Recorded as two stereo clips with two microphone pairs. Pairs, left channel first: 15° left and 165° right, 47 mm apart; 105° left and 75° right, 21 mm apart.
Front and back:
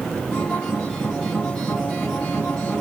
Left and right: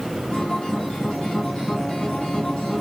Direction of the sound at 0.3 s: 85° left.